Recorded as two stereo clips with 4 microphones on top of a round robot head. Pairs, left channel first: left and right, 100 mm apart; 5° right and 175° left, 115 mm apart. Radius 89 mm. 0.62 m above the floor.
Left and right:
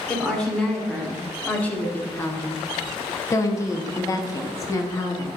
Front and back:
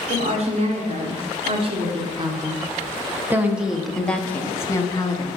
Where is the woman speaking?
175° left, 2.5 m; by 5.3 s 40° left, 1.7 m.